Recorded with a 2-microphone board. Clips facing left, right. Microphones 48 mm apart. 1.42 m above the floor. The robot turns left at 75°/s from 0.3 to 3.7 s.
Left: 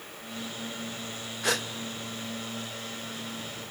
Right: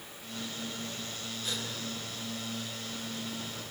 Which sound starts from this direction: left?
A gasp, at 1.4 s.